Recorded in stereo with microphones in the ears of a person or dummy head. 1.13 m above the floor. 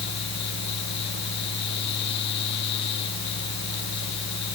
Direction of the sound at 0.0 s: 60° left (ahead or behind).